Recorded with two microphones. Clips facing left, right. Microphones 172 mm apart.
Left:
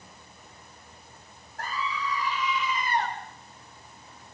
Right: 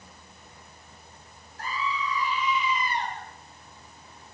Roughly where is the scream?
Left.